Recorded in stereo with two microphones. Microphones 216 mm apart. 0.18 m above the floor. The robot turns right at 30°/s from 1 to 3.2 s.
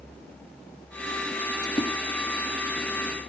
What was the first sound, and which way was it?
A splash, 15° left (ahead or behind).